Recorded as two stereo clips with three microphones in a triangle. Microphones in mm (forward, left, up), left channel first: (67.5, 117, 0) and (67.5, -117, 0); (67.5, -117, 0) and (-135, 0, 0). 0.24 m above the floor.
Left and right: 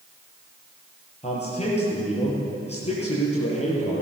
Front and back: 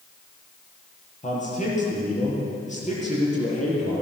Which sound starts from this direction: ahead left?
A man speaking, at 1.2 s.